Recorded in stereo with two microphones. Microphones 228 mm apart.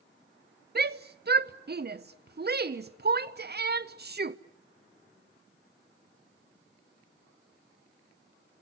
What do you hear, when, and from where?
0.8 s a shout: 45° right (ahead or behind), 0.6 m